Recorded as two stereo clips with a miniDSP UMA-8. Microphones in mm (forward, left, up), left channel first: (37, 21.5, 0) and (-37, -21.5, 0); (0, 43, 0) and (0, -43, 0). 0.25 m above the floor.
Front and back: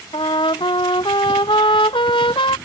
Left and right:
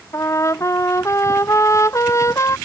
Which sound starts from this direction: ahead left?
A trumpet, at 0.1 s.